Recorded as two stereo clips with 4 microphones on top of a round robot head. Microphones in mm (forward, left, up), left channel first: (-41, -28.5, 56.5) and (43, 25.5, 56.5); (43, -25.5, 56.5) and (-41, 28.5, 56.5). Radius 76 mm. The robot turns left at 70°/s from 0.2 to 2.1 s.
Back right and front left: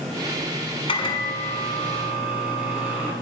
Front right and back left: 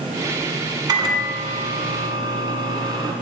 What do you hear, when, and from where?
0.9 s a microwave: 170° right, 1.2 m; by 3.1 s 105° left, 1.2 m